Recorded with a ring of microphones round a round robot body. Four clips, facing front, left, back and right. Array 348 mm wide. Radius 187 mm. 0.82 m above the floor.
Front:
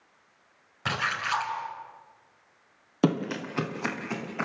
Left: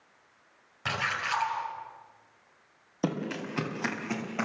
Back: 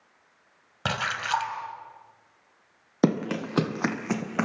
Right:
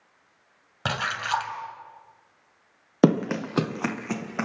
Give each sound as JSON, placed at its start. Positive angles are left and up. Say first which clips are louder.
{"t": 0.8, "sound": "a splash", "louder": "right 4 dB, back 1 dB", "azimuth_deg": -135, "distance_m": 3.0}
{"t": 3.0, "sound": "running footsteps", "louder": "right 11 dB, back 2 dB", "azimuth_deg": -100, "distance_m": 1.4}